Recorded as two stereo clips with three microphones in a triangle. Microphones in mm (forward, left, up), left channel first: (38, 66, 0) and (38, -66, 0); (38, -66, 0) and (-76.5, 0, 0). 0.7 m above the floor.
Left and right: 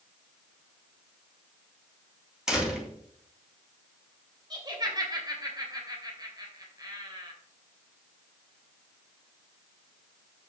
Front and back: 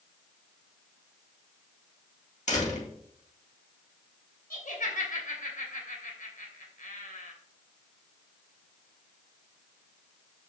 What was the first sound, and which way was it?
A door slam, 5° right.